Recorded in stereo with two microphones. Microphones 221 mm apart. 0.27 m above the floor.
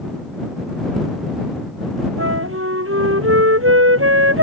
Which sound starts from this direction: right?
A flute, at 2.2 s.